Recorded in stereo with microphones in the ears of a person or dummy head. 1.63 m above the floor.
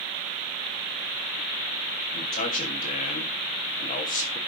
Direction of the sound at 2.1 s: 45° left (ahead or behind).